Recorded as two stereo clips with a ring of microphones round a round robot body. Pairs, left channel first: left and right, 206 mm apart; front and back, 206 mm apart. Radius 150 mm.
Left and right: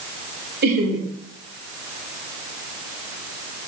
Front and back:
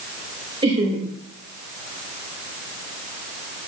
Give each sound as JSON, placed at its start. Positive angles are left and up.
{"t": 0.6, "sound": "laughter", "azimuth_deg": -115, "distance_m": 1.3}